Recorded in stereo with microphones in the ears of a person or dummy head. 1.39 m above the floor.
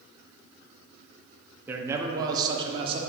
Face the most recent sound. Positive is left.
turn(degrees=-30)  # may be behind; listen again after turning